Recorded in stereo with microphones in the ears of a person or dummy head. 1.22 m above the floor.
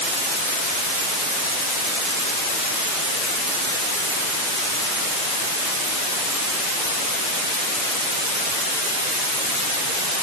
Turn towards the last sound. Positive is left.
No sound to turn to.